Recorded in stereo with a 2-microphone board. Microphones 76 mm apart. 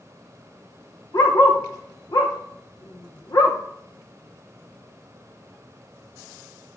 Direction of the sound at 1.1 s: 50° left (ahead or behind).